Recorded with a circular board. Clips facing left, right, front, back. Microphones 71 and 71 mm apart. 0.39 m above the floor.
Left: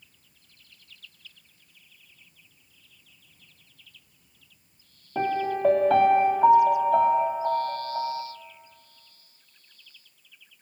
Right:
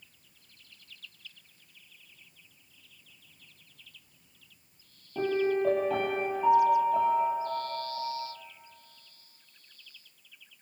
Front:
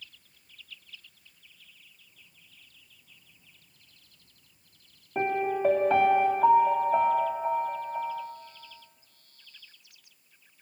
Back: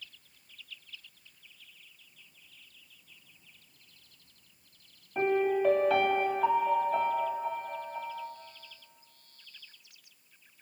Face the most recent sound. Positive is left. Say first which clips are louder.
# left 1 dB, back 1 dB
turn(degrees=60)